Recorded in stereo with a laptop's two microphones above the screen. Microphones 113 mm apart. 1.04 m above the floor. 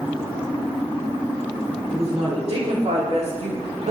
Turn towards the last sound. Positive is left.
turn(degrees=-75)  # may be behind; listen again after turning